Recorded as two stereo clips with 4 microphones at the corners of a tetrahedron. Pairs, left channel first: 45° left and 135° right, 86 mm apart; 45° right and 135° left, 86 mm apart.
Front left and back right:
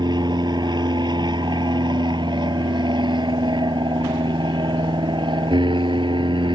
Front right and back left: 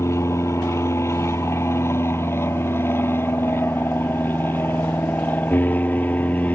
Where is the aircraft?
100° right; by 6.5 s 115° right.